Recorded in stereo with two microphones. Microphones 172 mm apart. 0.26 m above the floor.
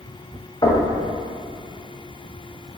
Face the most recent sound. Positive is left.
turn(degrees=25)  # may be behind; listen again after turning